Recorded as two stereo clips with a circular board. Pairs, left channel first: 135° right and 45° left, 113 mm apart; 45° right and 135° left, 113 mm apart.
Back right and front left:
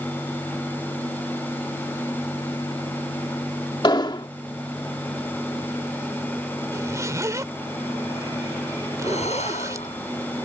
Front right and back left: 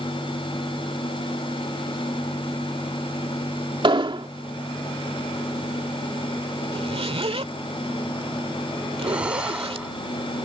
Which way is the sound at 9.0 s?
145° right.